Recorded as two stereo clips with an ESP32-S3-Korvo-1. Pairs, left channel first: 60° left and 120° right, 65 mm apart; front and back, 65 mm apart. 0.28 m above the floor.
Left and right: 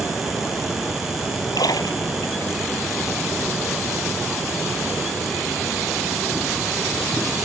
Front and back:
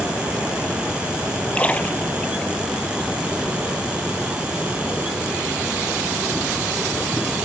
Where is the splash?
70° left.